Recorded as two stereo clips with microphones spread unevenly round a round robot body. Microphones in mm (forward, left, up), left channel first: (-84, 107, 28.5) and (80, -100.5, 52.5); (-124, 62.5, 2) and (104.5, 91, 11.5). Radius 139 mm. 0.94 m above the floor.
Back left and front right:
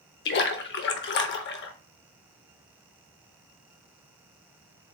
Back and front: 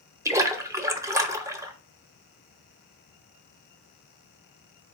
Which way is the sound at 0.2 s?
85° left.